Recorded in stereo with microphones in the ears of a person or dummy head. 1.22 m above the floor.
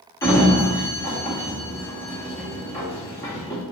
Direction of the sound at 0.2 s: 15° left (ahead or behind).